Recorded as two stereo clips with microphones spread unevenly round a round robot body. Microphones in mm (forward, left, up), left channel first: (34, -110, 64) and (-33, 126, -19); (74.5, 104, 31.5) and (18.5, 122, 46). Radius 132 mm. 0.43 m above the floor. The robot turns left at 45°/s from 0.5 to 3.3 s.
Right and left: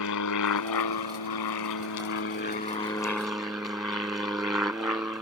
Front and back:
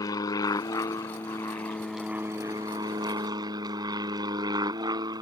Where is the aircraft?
45° right; by 5.2 s 170° right.